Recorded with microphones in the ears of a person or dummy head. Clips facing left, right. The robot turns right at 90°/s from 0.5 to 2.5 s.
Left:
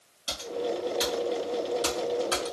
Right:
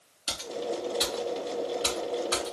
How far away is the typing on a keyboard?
About 1.4 m.